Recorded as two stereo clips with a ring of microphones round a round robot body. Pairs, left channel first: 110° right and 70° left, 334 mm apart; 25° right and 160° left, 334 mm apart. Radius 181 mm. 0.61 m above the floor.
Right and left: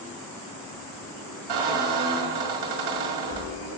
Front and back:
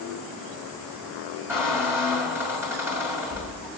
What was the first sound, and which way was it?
A squeak, 75° left.